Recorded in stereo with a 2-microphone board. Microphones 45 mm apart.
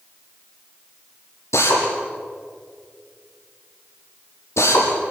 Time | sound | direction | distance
1.5 | a drill | 75° left (ahead or behind) | 5.5 m